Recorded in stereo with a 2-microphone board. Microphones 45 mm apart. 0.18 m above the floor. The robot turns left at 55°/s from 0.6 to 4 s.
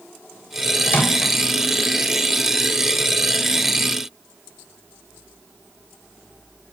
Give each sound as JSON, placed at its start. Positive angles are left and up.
{"t": 0.9, "sound": "a microwave", "side_deg": 45, "distance_m": 2.0}